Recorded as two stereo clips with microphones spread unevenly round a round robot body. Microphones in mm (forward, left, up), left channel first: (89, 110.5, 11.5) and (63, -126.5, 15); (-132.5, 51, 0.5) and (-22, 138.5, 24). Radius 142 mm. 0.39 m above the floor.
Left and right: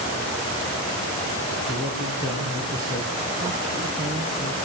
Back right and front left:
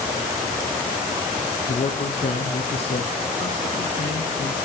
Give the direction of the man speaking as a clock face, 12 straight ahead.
6 o'clock.